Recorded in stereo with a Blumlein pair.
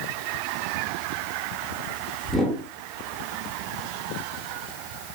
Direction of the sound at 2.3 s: 5° left.